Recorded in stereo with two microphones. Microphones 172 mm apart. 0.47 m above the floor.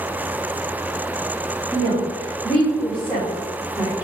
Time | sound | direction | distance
1.7 | a woman speaking | 25° left (ahead or behind) | 1.9 m